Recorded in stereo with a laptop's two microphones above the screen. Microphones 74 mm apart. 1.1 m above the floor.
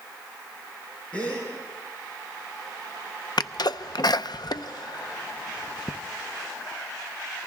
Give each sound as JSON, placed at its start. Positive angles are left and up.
{"t": 1.1, "sound": "a gasp", "side_deg": 20, "distance_m": 6.5}
{"t": 3.4, "sound": "a sneeze", "side_deg": 65, "distance_m": 0.6}